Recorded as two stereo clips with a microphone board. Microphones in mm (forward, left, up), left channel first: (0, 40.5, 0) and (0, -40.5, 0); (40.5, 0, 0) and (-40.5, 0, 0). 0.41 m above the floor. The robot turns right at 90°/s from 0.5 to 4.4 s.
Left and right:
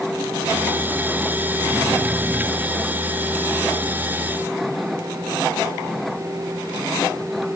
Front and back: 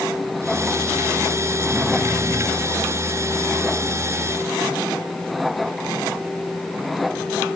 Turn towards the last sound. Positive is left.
No sound to turn to.